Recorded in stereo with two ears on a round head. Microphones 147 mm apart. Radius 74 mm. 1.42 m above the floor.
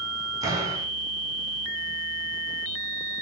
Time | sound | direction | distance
0.4 | a door slam | 25° right (ahead or behind) | 10 m